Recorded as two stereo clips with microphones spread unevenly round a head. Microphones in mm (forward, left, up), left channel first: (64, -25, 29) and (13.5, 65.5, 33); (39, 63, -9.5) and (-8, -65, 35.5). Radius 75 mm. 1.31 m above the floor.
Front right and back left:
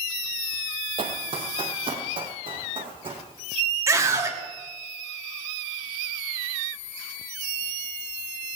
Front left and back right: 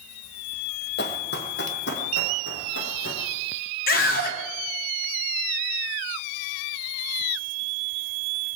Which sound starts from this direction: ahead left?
A scream, at 3.9 s.